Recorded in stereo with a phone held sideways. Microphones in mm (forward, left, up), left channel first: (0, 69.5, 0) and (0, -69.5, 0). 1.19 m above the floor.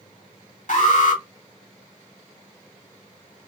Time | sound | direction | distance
0.7 | an alarm | 65° left (ahead or behind) | 2 m